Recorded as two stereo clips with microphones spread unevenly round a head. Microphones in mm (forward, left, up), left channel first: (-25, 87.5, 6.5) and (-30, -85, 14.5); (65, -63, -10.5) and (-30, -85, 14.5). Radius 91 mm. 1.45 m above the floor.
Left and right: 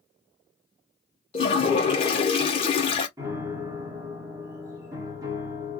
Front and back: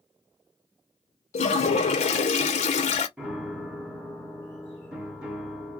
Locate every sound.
1.3 s a toilet flushing: 25° left, 0.6 m
3.2 s a piano: 135° right, 1.0 m